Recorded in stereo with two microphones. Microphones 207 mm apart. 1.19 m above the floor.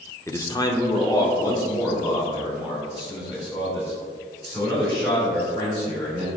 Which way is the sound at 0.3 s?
15° left (ahead or behind).